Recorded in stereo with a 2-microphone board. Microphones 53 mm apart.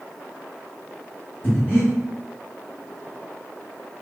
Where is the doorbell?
I don't hear a doorbell.